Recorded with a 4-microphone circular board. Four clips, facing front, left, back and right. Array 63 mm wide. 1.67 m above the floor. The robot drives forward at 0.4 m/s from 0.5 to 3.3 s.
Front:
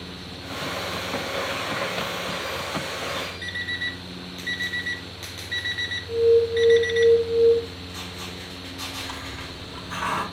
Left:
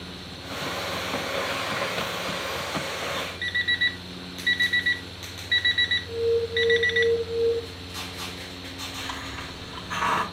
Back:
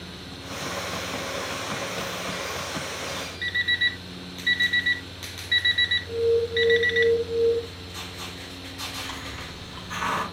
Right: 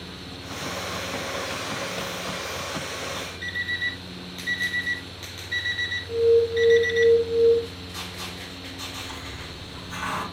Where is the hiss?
110° left, 2.5 m.